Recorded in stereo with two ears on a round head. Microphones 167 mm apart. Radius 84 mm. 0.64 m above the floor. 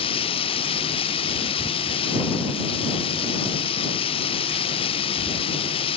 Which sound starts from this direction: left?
Running water, at 0.0 s.